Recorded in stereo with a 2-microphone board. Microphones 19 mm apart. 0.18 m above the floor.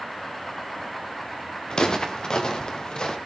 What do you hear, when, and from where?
1.7 s footsteps: 45° left (ahead or behind), 3 m